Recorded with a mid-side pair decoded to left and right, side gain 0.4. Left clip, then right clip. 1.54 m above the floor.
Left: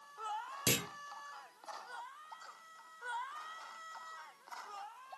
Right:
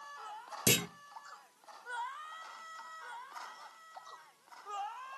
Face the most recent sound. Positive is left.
turn(degrees=-35)